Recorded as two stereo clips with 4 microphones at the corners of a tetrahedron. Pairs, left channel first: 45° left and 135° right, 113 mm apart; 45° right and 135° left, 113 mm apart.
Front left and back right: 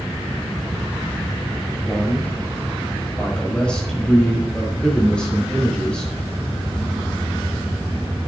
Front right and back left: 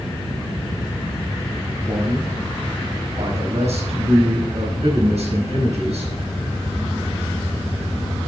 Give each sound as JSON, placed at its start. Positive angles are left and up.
{"t": 1.9, "sound": "a man speaking", "azimuth_deg": 125, "distance_m": 4.5}